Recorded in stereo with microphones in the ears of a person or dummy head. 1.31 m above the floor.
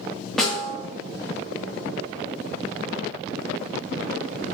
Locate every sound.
0.4 s a snare drum: 5° right (ahead or behind), 0.5 m